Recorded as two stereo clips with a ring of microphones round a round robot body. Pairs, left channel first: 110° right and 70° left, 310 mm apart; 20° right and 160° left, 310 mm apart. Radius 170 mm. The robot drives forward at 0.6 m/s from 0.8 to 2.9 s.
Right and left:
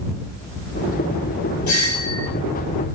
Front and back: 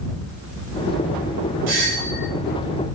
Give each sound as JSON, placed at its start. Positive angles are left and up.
{"t": 1.7, "sound": "a doorbell", "azimuth_deg": -155, "distance_m": 4.5}